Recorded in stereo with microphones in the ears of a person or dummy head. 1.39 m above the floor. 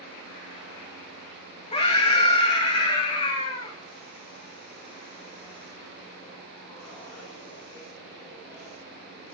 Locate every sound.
1.7 s a scream: 35° left (ahead or behind), 2.5 m